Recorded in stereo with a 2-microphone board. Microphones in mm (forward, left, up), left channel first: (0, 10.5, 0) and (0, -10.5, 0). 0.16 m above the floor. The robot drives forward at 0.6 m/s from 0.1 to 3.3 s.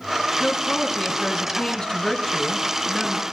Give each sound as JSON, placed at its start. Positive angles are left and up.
{"t": 0.4, "sound": "a woman speaking", "side_deg": 35, "distance_m": 1.4}